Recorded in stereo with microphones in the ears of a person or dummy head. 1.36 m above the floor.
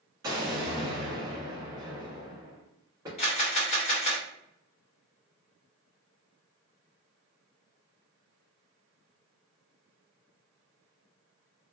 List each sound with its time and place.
0.2 s an explosion: 25° right (ahead or behind), 1.2 m
3.2 s a camera shutter: 35° left (ahead or behind), 1.0 m